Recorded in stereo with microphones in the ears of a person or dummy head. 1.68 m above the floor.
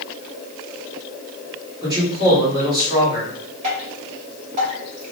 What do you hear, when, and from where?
1.8 s a man speaking: 25° right (ahead or behind), 1.5 m
3.6 s dripping: 45° right (ahead or behind), 1.3 m